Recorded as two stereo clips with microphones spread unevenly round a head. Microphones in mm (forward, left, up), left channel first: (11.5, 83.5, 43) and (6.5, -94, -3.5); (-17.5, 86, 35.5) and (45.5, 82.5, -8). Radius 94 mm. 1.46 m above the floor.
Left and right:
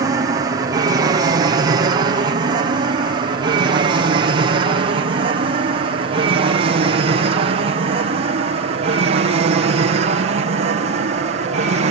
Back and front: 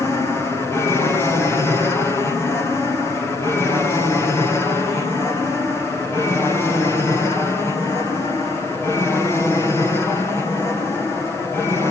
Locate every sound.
0.0 s an aircraft: 90° right; by 11.9 s 95° right